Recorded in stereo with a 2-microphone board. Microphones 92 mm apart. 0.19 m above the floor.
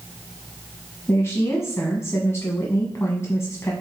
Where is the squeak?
I don't hear a squeak.